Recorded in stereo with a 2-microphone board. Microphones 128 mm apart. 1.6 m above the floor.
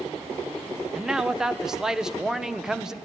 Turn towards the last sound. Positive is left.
turn(degrees=-5)  # may be behind; listen again after turning